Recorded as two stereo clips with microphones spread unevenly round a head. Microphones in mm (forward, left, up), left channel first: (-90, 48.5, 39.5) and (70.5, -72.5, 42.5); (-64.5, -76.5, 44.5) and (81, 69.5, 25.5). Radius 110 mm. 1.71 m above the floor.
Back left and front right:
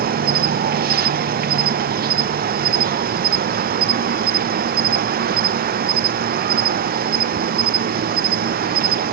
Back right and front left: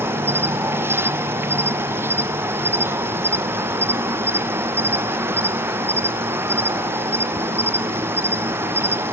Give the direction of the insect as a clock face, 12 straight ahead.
1 o'clock.